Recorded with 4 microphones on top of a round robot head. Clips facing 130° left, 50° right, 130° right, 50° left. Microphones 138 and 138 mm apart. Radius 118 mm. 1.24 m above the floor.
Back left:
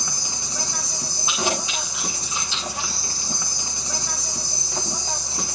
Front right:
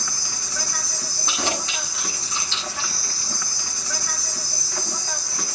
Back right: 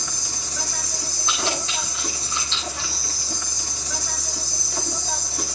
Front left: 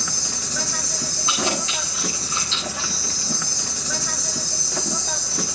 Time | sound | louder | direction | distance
0.0 | an insect | back left 1 dB, front left 3 dB | 60° left | 1.0 m
1.3 | keys jangling | back left 2 dB, front left 2 dB | 55° left | 8.5 m